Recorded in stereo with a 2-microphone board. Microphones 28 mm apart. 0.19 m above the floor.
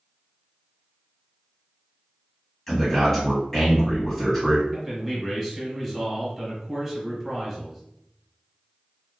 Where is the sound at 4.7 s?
10° right (ahead or behind), 1.3 m.